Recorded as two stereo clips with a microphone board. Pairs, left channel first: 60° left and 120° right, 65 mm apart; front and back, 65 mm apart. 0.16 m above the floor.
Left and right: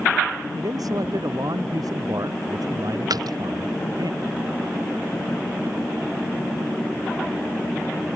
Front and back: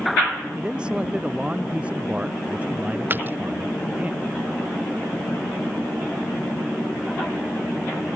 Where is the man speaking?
105° right; by 4.1 s 115° right.